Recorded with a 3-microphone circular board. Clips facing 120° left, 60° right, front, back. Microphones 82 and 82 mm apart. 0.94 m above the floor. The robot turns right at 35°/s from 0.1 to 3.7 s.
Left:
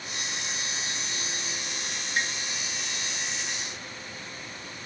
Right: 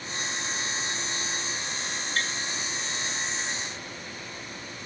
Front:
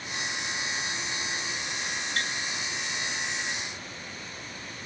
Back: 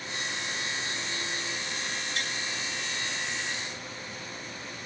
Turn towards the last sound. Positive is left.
turn(degrees=100)